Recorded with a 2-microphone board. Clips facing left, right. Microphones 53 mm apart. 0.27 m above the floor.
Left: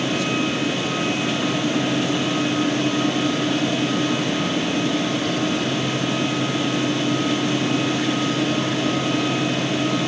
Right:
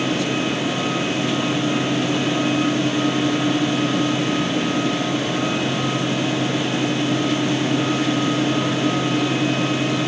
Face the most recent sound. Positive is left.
No sound to turn to.